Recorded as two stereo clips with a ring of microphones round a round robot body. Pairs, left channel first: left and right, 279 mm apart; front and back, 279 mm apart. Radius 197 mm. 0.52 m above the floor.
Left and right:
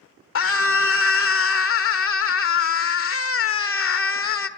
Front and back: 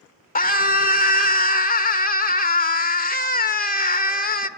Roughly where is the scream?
Ahead left.